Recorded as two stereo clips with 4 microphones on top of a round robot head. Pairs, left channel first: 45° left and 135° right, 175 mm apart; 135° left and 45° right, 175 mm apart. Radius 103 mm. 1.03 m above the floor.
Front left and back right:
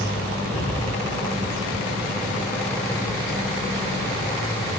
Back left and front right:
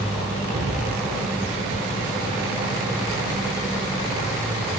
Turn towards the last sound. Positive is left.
turn(degrees=10)